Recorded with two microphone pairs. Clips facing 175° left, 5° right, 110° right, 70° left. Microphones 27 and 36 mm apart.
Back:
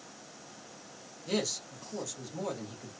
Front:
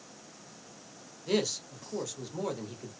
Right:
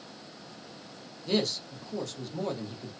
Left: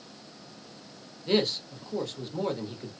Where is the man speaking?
45° left, 0.9 m.